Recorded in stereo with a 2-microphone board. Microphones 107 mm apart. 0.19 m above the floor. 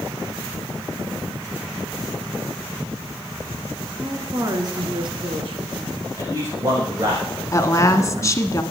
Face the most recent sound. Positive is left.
turn(degrees=30)  # may be behind; listen again after turning